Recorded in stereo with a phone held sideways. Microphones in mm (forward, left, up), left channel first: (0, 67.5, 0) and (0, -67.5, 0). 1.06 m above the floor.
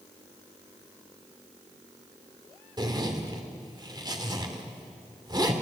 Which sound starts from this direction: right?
A zipper, at 2.8 s.